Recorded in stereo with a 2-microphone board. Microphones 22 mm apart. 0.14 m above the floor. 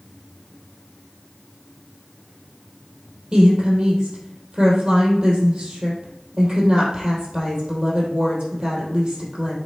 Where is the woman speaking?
35° right (ahead or behind), 3.5 m.